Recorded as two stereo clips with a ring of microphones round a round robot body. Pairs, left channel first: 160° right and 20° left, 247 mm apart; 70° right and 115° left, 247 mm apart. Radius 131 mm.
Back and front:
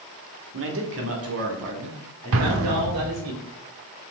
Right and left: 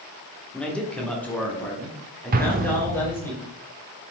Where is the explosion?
55° left, 0.8 m.